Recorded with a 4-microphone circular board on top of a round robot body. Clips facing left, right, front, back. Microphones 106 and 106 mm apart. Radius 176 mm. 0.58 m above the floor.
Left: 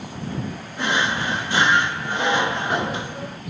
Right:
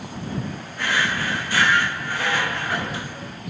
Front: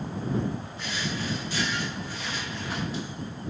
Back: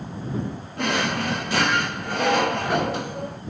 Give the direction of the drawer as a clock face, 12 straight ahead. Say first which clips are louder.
Left 2 dB, back 13 dB; 7 o'clock.